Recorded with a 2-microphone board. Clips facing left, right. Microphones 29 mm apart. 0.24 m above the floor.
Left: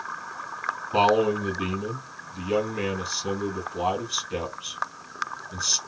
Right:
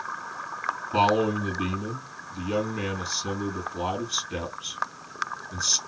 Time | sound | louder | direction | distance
0.9 | a man speaking | left 2 dB | 10° left (ahead or behind) | 1.9 m